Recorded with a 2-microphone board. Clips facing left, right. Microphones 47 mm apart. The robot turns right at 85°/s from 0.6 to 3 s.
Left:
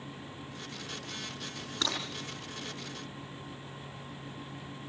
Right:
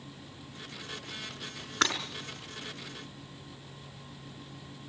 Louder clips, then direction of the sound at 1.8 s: Right 6 dB; 55° right (ahead or behind).